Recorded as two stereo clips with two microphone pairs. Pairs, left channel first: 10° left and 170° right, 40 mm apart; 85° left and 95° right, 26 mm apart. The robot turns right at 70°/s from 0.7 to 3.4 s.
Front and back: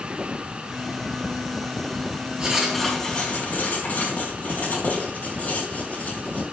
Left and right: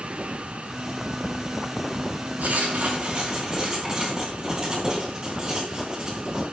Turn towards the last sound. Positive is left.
turn(degrees=-35)